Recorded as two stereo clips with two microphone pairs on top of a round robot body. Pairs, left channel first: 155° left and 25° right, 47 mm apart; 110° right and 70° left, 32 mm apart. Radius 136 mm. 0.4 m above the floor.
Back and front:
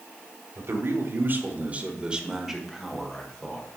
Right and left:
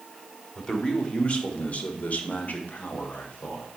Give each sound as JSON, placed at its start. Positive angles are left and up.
{"t": 0.6, "sound": "a man speaking", "azimuth_deg": -50, "distance_m": 2.0}